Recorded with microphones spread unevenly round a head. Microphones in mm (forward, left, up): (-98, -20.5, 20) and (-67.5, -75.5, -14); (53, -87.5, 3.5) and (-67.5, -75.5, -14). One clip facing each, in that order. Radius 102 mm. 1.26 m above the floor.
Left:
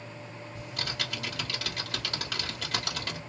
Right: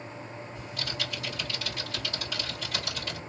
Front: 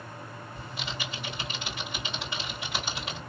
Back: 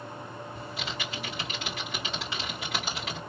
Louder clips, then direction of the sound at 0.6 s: Left 1 dB, even; 115° left.